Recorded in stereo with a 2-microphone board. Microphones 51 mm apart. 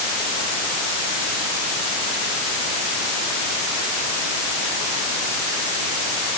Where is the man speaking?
I don't hear a man speaking.